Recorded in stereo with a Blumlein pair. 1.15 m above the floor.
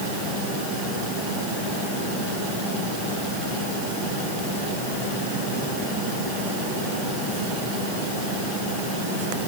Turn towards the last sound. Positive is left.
No sound to turn to.